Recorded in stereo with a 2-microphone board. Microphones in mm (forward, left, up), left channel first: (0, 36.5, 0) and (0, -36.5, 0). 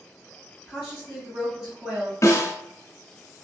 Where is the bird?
I don't hear a bird.